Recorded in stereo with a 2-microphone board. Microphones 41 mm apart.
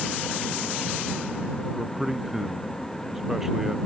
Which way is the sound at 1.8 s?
5° right (ahead or behind).